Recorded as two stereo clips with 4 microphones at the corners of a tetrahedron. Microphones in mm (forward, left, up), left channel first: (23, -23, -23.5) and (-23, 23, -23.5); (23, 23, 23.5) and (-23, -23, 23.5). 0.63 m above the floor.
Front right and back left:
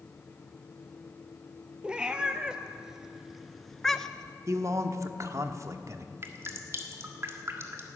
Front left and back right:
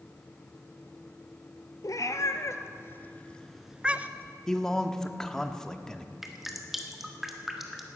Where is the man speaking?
125° left, 1.0 m.